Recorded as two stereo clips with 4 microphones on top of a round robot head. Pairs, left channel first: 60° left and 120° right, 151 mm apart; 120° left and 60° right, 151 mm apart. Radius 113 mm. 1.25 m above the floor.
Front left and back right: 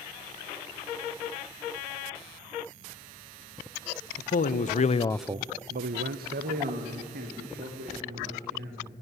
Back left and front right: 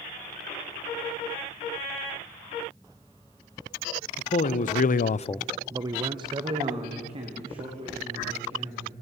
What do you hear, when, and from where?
4.2 s a man speaking: 85° left, 1.5 m; by 8.9 s 110° right, 5 m